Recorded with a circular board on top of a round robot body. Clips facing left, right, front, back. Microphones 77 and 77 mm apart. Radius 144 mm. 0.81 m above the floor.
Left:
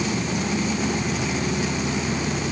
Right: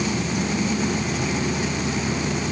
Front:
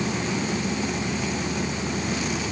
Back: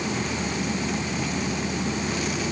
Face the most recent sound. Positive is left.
No sound to turn to.